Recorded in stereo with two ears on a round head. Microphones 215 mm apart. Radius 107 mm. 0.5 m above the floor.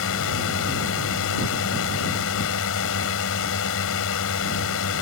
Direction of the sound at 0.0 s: 60° left (ahead or behind).